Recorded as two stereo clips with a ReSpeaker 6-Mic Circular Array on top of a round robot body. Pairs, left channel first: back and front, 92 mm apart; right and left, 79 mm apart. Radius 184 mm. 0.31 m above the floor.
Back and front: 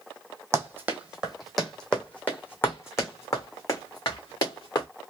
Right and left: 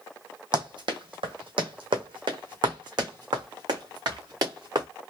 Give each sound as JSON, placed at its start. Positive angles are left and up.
{"t": 0.5, "sound": "running footsteps", "azimuth_deg": 60, "distance_m": 1.1}